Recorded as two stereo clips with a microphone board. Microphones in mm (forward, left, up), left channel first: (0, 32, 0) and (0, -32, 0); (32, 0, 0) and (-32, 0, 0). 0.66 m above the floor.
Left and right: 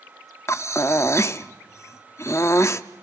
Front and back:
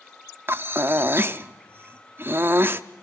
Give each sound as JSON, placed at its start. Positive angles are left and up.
{"t": 0.5, "sound": "breathing", "azimuth_deg": 125, "distance_m": 0.5}